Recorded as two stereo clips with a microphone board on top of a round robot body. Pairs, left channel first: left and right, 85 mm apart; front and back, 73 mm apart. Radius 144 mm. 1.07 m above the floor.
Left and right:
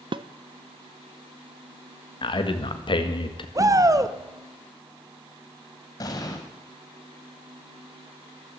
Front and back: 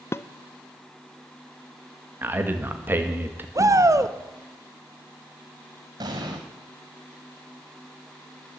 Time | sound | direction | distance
0.1 | dishes clattering | 60° right | 0.6 m
2.2 | a man speaking | 115° left | 1.9 m
3.5 | a shout | 135° right | 1.4 m
6.0 | an explosion | 140° left | 1.3 m